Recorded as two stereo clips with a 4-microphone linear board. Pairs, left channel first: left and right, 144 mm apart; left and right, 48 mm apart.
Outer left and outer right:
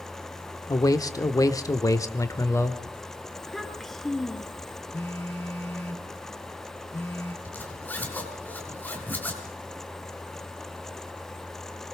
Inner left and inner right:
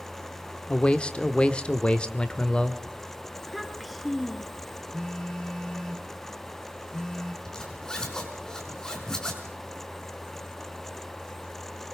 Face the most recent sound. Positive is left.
turn(degrees=10)  # may be behind; listen again after turning